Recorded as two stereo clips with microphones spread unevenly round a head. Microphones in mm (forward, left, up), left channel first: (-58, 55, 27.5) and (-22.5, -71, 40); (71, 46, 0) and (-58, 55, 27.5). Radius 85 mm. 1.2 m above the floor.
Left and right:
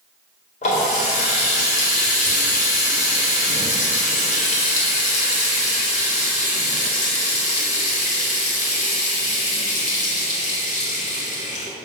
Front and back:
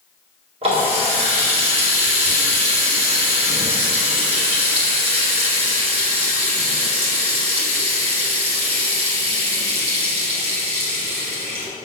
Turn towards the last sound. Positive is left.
turn(degrees=135)